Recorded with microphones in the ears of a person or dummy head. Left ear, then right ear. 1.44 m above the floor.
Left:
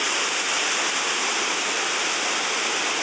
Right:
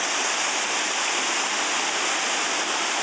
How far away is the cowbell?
No cowbell in this recording.